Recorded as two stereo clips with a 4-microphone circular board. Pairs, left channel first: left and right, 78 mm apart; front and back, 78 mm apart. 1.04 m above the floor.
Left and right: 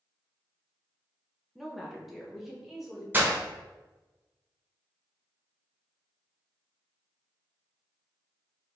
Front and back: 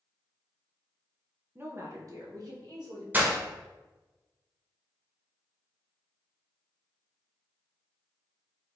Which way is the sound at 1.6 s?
Straight behind.